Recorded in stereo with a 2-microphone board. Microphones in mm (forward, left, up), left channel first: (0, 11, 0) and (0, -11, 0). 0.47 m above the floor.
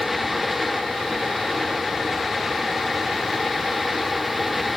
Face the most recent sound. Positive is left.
No sound to turn to.